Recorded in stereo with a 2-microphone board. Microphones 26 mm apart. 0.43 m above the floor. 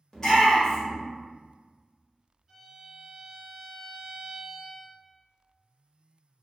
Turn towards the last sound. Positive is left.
turn(degrees=-25)  # may be behind; listen again after turning